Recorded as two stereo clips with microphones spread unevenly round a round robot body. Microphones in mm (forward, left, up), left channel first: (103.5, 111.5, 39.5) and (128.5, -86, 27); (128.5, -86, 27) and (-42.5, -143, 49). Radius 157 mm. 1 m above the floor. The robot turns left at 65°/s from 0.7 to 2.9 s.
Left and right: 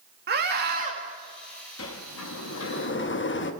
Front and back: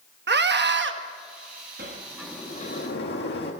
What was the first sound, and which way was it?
A scream, 135° right.